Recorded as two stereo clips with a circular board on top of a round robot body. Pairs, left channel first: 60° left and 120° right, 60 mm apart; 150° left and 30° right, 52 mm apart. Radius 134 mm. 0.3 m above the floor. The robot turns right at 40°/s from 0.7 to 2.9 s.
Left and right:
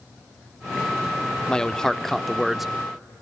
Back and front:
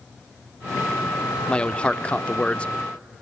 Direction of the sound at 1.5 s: 110° left.